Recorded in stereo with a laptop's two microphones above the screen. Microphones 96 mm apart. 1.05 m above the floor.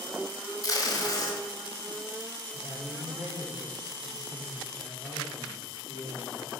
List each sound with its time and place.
0.6 s tape being pulled: 40° left (ahead or behind), 1.4 m
2.5 s a man speaking: 40° left (ahead or behind), 3 m